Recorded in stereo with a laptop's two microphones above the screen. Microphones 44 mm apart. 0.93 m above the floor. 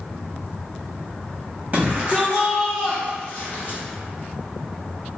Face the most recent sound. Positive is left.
turn(degrees=45)  # may be behind; listen again after turning